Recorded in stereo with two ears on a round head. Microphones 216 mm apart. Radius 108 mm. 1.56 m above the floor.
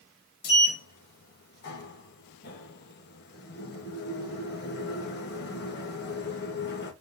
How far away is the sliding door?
About 3 m.